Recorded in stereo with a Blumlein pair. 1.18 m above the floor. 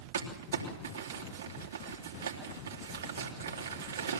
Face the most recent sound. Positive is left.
turn(degrees=-70)